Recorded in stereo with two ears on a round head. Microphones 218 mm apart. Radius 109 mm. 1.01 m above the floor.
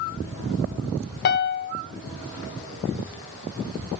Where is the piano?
45° left (ahead or behind), 0.6 m.